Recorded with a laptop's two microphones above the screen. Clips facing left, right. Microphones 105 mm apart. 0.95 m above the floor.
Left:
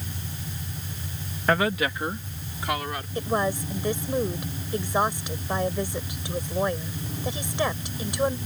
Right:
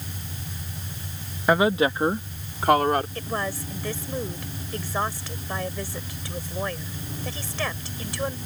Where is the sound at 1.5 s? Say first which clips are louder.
Right 4 dB; 15° right (ahead or behind); by 3.0 s 50° right (ahead or behind).